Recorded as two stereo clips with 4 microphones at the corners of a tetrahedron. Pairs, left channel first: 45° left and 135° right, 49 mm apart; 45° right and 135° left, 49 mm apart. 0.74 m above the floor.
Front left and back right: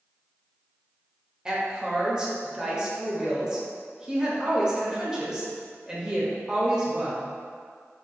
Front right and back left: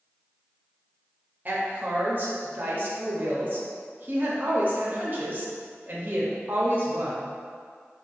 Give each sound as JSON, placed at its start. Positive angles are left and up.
{"t": 1.4, "sound": "a woman speaking", "azimuth_deg": 160, "distance_m": 0.7}